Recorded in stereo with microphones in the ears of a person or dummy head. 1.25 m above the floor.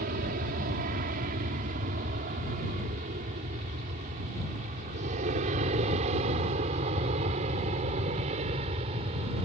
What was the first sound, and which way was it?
An aircraft, 55° right (ahead or behind).